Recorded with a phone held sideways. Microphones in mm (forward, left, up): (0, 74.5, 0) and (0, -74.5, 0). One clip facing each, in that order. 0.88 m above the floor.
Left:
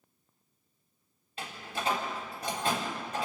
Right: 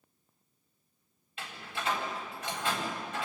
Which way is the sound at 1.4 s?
40° left (ahead or behind).